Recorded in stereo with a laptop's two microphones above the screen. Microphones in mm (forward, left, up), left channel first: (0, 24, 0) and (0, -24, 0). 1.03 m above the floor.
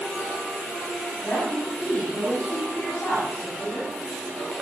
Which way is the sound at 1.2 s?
55° left (ahead or behind).